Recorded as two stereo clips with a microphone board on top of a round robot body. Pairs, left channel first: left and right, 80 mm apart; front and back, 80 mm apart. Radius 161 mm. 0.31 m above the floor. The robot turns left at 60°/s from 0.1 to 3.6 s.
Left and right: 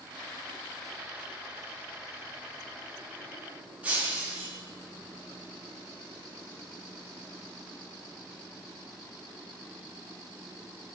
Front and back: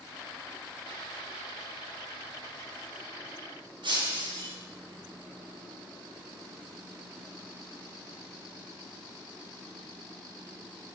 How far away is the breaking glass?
About 2.5 m.